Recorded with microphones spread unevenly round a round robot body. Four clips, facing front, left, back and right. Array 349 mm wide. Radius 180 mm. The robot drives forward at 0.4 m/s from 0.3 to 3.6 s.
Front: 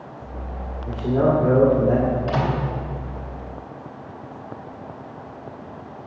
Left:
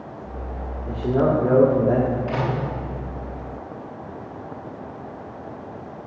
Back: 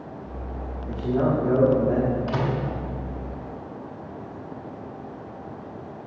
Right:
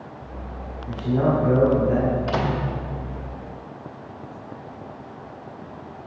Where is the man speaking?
50° left, 2 m; by 2.2 s 60° left, 1.9 m.